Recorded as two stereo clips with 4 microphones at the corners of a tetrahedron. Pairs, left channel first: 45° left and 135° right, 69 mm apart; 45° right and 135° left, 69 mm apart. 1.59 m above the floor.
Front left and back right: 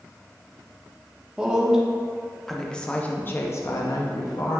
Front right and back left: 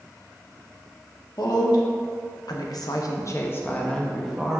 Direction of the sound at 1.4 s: 60° right.